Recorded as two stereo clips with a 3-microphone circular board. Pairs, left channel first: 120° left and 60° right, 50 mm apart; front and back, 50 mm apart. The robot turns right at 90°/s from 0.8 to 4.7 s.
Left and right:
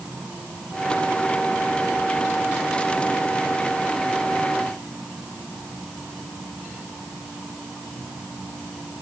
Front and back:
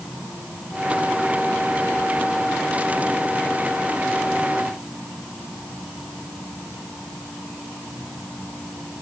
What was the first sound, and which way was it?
Only background noise.